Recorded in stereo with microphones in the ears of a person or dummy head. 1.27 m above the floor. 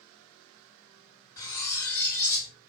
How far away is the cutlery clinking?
About 0.7 m.